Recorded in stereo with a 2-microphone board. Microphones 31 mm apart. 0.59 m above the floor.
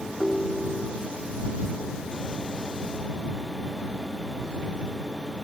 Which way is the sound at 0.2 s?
35° left (ahead or behind).